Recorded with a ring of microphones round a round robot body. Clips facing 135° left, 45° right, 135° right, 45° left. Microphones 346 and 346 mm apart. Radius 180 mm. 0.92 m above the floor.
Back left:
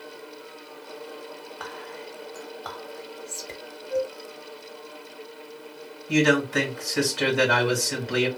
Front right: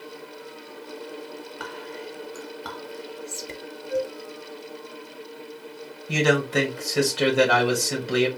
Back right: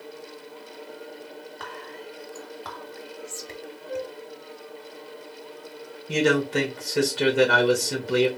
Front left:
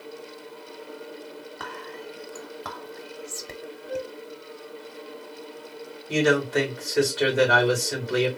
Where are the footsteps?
I don't hear footsteps.